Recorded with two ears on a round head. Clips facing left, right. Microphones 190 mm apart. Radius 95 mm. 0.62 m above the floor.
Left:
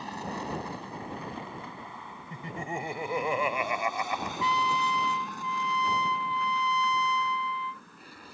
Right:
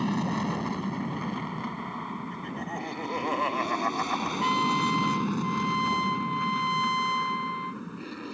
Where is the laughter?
10° left (ahead or behind).